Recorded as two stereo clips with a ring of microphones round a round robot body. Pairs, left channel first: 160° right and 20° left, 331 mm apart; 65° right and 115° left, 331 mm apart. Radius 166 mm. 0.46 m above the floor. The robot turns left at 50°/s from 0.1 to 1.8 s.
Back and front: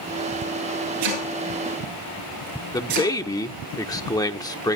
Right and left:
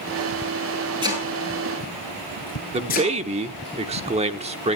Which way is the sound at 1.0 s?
35° left.